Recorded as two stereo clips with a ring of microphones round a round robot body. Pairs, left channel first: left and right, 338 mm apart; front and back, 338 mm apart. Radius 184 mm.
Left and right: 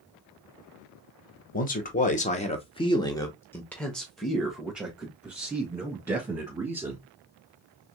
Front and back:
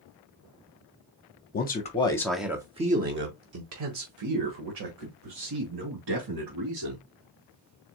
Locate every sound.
1.5 s a man speaking: 40° left, 1.0 m; by 7.0 s 170° right, 3 m